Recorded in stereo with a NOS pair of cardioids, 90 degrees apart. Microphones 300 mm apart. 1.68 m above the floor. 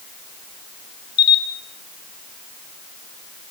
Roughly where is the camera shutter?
Ahead left.